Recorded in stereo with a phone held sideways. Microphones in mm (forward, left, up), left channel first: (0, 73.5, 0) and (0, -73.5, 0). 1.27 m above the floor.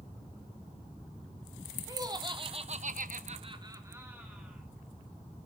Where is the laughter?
25° right (ahead or behind), 1.5 m; by 4.6 s 5° right (ahead or behind), 1.8 m.